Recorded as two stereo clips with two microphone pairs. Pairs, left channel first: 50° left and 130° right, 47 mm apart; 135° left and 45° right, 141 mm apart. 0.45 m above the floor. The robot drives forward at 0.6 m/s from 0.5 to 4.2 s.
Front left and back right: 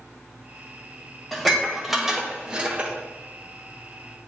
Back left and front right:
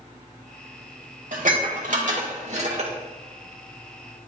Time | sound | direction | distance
1.3 | dishes clattering | 40° right | 1.5 m